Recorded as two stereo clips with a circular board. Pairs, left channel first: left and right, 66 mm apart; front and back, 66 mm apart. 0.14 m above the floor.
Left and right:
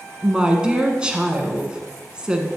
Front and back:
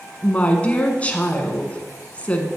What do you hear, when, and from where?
0.2 s a woman speaking: 35° right, 1.2 m